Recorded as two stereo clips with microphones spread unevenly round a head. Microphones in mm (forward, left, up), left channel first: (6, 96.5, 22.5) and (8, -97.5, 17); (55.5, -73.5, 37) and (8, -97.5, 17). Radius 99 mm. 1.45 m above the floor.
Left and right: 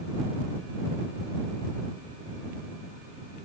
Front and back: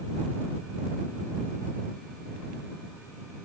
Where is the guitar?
I don't hear a guitar.